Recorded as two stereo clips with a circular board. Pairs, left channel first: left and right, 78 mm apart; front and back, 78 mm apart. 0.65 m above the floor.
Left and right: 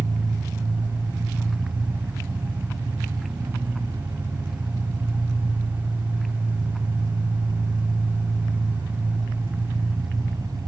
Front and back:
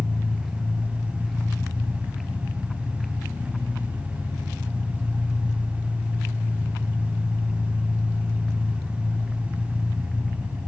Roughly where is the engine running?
Right.